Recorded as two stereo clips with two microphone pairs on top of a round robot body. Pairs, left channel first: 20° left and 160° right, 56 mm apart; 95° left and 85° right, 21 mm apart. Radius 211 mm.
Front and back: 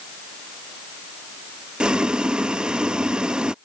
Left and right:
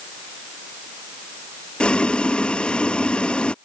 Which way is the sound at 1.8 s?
130° left.